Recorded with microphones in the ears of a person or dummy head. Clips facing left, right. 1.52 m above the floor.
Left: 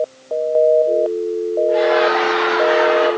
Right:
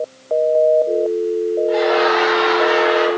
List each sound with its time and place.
1.7 s laughter: 75° right (ahead or behind), 4 m; by 3.1 s 60° right (ahead or behind), 4.5 m